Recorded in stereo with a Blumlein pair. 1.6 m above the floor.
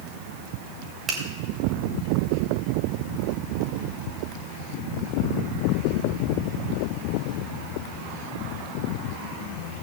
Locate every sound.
1.1 s a finger snap: 15° right, 3 m